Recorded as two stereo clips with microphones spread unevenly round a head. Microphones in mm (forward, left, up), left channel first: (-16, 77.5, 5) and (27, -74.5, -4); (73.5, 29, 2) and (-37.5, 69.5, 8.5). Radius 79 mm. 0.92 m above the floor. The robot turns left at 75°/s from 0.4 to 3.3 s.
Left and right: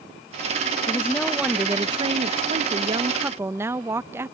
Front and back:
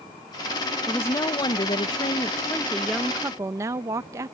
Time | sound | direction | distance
0.9 | a woman speaking | 45° left | ?